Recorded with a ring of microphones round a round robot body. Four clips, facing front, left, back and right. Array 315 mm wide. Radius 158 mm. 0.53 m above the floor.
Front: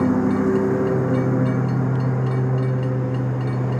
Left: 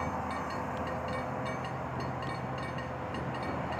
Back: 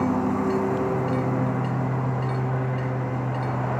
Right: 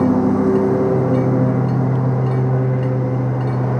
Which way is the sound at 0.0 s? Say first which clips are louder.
Right 20 dB, front 4 dB; 70° right.